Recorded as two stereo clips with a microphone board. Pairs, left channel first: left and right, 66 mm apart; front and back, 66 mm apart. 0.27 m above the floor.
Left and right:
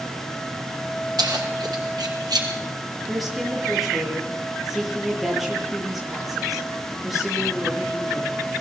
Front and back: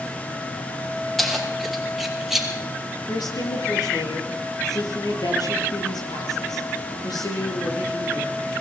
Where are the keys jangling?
85° right, 5 m; by 2.5 s 95° right, 5 m.